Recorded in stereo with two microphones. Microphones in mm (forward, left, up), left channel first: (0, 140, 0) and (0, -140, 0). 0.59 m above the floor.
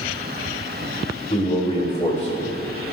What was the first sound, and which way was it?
A man speaking, 20° left (ahead or behind).